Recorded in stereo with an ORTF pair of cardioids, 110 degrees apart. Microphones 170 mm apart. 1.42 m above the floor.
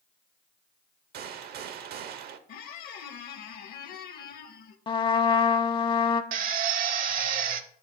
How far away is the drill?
About 0.8 m.